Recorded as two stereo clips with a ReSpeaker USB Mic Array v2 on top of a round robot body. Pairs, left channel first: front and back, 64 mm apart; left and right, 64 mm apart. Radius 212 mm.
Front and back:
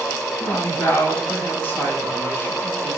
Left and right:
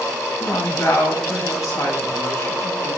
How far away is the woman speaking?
About 5.5 m.